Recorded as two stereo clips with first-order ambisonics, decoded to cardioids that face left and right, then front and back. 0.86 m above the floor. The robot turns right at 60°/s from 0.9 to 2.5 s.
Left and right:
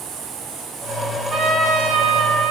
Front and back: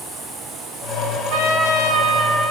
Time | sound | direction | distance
1.3 | a trumpet | 155° right | 5 m